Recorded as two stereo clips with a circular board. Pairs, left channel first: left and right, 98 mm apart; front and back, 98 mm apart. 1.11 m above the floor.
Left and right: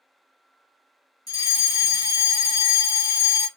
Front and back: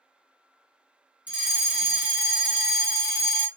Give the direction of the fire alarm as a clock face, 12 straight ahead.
8 o'clock.